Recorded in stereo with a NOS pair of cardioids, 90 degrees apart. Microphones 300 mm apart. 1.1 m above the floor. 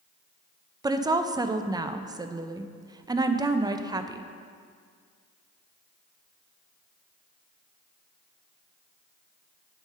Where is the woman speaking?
15° right, 0.5 m.